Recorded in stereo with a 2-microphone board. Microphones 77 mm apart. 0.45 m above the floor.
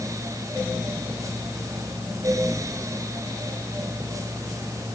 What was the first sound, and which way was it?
Only background noise.